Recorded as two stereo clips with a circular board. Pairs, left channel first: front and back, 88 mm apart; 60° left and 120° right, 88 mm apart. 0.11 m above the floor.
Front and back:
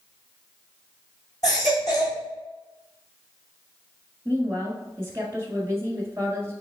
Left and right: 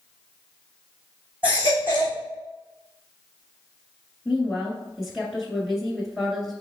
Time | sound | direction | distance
1.4 | a baby crying | 45° right | 2.5 m
4.2 | a woman speaking | 150° left | 1.6 m